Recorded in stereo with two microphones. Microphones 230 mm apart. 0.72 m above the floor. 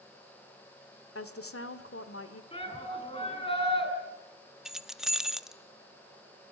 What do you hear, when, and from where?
1.1 s a woman speaking: 75° left (ahead or behind), 2 m
2.5 s a shout: 25° left (ahead or behind), 6 m
4.7 s keys jangling: 5° right (ahead or behind), 0.8 m